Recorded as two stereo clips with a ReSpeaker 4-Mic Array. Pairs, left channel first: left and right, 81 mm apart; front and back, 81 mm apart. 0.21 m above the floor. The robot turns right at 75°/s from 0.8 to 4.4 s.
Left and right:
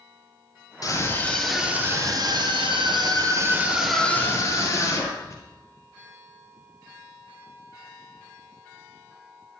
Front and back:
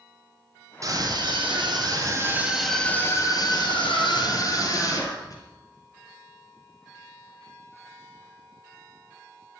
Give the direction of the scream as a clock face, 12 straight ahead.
8 o'clock.